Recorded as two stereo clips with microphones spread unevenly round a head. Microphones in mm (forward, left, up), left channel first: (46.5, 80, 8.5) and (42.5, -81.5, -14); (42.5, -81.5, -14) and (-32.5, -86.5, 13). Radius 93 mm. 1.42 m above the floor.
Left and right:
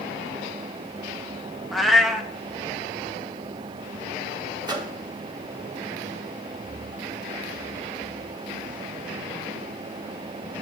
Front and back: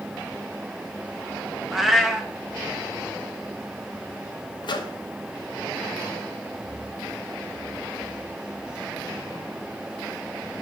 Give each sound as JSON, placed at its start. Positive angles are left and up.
{"t": 1.7, "sound": "a cat meowing", "azimuth_deg": 160, "distance_m": 0.7}
{"t": 4.6, "sound": "a microwave", "azimuth_deg": -25, "distance_m": 1.3}